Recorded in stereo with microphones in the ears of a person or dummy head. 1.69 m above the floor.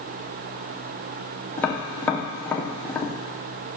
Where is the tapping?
10° left (ahead or behind), 0.7 m.